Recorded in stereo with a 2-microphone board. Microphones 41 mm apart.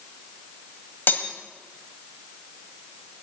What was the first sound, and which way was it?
Cutlery clinking, 55° left (ahead or behind).